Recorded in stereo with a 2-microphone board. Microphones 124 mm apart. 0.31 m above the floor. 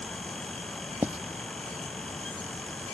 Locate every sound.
1.0 s writing: 15° right (ahead or behind)